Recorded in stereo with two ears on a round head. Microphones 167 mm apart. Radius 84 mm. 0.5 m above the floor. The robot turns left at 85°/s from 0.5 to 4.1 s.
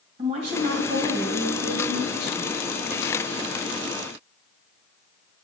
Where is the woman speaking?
30° right, 3 m; by 2.5 s 155° left, 3 m.